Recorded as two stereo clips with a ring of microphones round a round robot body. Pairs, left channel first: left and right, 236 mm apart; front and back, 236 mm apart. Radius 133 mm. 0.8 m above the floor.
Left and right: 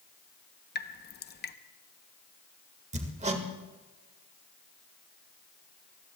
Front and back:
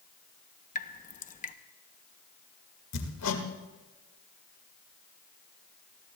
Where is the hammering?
30° right, 1.9 m.